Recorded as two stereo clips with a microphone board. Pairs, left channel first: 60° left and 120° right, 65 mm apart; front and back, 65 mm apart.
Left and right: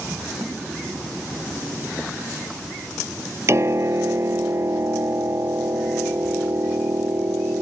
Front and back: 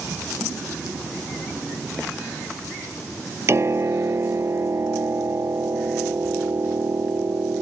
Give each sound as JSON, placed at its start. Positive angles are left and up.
{"t": 3.5, "sound": "a piano", "azimuth_deg": -150}